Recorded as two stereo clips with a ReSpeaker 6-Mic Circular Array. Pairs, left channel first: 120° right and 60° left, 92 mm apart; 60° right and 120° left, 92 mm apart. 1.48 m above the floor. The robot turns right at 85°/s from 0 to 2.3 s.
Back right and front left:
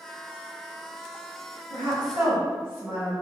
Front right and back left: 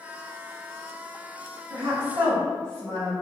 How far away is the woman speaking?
About 1.7 m.